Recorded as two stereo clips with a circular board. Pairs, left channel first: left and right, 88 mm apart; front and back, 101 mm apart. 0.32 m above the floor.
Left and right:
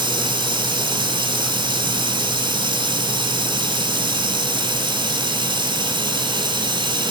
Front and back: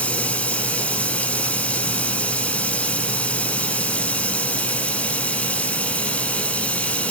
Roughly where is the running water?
Right.